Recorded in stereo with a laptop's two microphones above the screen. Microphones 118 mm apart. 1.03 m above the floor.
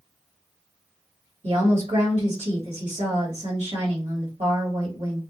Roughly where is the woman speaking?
Right.